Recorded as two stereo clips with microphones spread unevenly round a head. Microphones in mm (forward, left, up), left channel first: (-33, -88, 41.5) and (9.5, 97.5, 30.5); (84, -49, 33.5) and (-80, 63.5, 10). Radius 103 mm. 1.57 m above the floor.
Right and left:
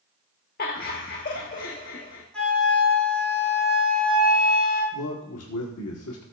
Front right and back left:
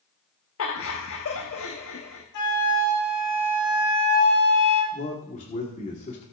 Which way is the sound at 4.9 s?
90° right.